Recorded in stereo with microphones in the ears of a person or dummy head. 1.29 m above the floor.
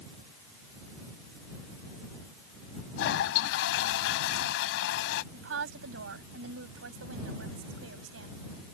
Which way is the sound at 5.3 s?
85° right.